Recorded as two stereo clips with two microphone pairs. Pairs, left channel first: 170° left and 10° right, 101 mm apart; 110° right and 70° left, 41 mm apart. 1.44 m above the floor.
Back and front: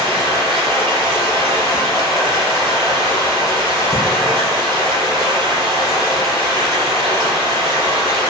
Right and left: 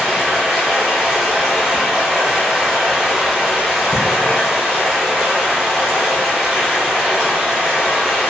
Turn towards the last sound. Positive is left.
turn(degrees=150)